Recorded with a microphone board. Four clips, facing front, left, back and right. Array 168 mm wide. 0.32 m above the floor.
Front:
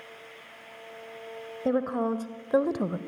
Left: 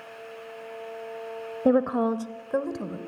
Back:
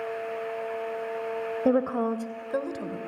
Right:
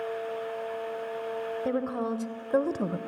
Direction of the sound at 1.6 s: 115° left.